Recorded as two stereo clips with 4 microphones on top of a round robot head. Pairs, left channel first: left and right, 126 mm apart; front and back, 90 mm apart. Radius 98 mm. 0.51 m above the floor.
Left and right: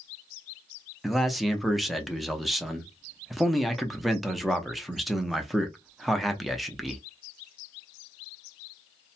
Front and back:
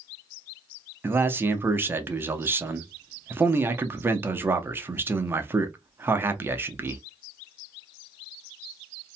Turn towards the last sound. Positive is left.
turn(degrees=180)